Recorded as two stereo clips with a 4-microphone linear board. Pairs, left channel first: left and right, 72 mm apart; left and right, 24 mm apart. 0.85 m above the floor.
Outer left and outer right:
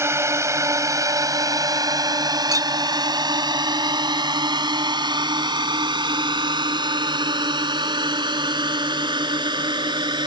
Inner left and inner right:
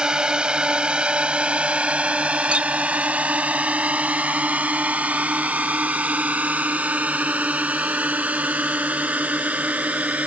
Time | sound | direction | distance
0.0 | a drone | 35° right (ahead or behind) | ?
2.5 | a clink | 50° right (ahead or behind) | ?